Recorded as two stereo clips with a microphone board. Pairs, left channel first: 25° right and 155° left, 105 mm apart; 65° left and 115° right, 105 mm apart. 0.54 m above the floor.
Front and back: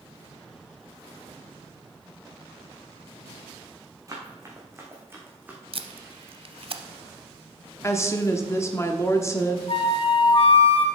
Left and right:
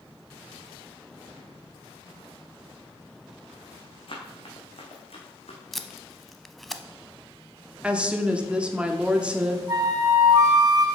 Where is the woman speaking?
45° right, 0.9 m.